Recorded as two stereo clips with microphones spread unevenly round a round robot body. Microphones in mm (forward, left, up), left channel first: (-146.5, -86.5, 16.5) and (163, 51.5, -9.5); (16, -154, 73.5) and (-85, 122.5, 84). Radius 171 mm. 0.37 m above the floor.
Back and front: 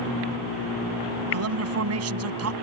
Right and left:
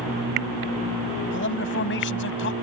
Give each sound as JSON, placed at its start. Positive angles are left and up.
{"t": 1.3, "sound": "a man speaking", "azimuth_deg": -20}